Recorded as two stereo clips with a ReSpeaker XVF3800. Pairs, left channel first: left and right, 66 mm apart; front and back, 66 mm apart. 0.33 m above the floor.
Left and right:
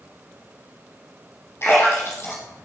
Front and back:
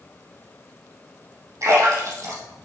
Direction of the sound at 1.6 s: 140° left.